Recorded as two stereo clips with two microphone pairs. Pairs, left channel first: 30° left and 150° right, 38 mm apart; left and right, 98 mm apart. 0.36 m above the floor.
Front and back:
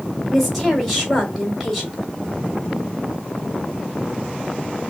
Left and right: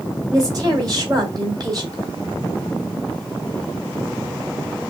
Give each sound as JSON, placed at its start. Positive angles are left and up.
{"t": 0.3, "sound": "a woman speaking", "azimuth_deg": -65, "distance_m": 2.0}